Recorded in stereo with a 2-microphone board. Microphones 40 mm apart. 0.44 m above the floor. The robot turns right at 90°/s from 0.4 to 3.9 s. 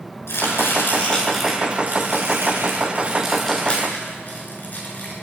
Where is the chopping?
80° left, 7 m; by 5.1 s 45° left (ahead or behind), 7 m.